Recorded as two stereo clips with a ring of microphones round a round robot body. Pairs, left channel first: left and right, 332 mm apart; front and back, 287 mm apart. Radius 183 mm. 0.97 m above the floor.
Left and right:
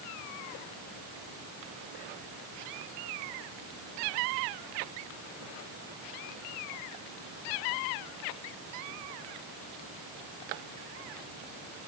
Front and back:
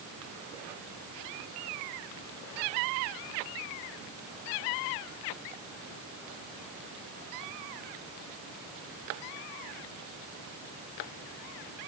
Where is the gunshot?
I don't hear a gunshot.